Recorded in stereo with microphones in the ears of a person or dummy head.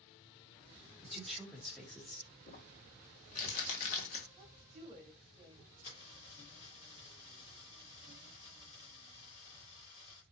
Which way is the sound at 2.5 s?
40° left (ahead or behind).